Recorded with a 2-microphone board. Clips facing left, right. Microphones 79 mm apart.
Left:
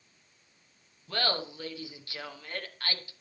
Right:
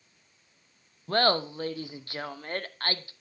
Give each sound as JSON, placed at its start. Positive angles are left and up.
{"t": 1.1, "sound": "laughter", "side_deg": -40, "distance_m": 0.7}